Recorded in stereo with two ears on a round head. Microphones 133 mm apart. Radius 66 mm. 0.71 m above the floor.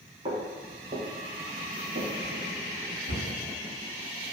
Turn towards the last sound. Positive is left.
turn(degrees=-75)  # may be behind; listen again after turning